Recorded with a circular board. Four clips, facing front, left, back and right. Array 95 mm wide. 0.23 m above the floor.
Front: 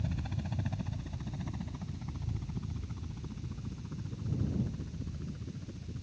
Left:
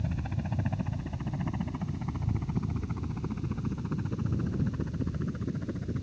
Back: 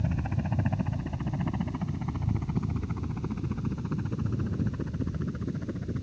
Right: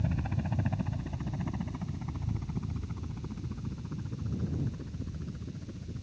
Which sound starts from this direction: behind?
A helicopter, at 0.0 s.